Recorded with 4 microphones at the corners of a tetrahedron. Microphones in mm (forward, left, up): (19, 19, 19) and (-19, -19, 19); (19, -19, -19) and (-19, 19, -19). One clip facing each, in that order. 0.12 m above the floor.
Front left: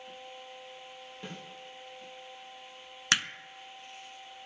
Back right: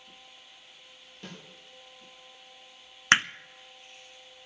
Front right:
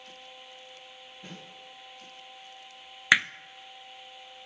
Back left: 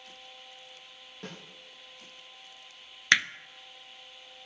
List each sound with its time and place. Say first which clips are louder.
1.2 s a snare drum: front left 1 dB, back left 3 dB; 120° left, 8 m
3.1 s hammering: back right 7 dB, front right 2 dB; 115° right, 0.6 m